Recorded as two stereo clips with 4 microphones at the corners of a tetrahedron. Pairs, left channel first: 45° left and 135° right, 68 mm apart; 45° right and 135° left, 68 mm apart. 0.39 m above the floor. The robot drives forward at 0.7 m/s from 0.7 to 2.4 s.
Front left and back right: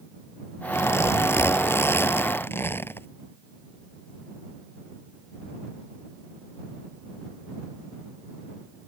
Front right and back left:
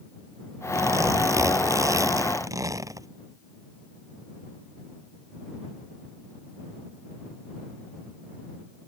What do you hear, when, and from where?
0.7 s a zipper: 95° left; by 3.1 s 100° left